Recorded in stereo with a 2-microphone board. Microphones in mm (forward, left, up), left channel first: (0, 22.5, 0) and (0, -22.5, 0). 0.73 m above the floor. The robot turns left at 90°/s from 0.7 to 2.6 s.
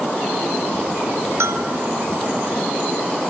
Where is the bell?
80° right, 1.4 m; by 1.7 s 55° right (ahead or behind), 1.4 m.